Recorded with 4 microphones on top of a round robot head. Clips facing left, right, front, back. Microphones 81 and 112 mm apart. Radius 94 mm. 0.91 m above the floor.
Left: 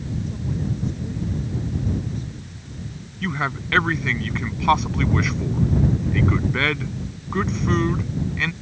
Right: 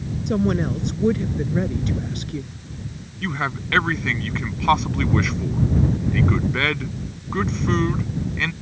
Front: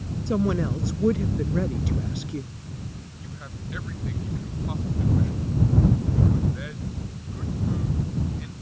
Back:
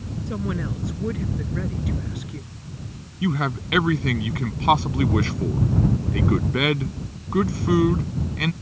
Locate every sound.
0.3 s a woman speaking: 65° right
3.2 s a man speaking: straight behind